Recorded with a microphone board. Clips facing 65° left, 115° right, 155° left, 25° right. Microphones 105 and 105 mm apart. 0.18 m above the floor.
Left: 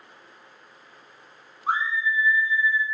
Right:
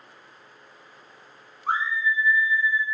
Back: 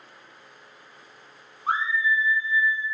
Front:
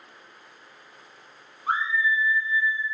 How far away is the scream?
About 1.1 m.